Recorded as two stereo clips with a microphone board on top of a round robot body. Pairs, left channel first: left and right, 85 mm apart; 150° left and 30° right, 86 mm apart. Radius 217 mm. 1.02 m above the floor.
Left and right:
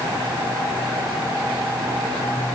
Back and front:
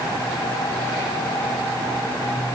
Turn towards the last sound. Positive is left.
No sound to turn to.